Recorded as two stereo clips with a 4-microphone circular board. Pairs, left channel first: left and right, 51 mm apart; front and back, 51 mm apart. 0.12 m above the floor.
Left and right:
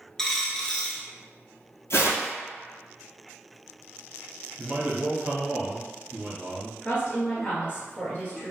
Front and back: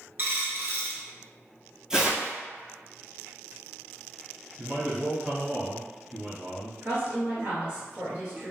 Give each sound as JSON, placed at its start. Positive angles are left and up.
{"t": 0.2, "sound": "a dropped coin", "azimuth_deg": 160, "distance_m": 0.6}
{"t": 1.9, "sound": "tearing paper", "azimuth_deg": 100, "distance_m": 0.9}
{"t": 4.6, "sound": "a man speaking", "azimuth_deg": -120, "distance_m": 1.3}
{"t": 6.8, "sound": "a woman speaking", "azimuth_deg": 130, "distance_m": 1.6}